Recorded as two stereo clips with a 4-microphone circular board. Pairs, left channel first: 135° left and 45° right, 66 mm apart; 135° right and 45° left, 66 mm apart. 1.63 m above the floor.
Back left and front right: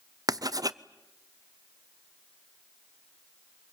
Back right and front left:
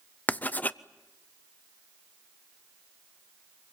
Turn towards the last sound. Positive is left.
turn(degrees=-70)